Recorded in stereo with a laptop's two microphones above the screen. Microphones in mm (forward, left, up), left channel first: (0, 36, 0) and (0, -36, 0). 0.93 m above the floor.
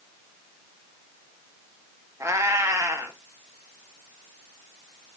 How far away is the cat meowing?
About 0.6 m.